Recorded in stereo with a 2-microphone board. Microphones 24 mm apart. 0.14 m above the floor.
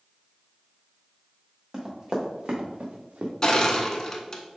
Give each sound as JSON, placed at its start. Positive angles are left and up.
{"t": 1.7, "sound": "running footsteps", "side_deg": -25, "distance_m": 1.9}
{"t": 3.4, "sound": "crushing", "side_deg": 25, "distance_m": 0.7}